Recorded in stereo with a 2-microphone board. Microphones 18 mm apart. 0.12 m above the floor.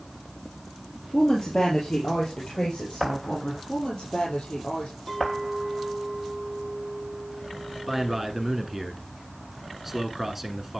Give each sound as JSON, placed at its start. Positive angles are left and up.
{"t": 1.1, "sound": "a woman speaking", "side_deg": 50, "distance_m": 2.5}
{"t": 3.7, "sound": "a woman speaking", "side_deg": 65, "distance_m": 5.5}
{"t": 5.1, "sound": "a clink", "side_deg": 25, "distance_m": 3.5}
{"t": 7.9, "sound": "a man speaking", "side_deg": -15, "distance_m": 1.2}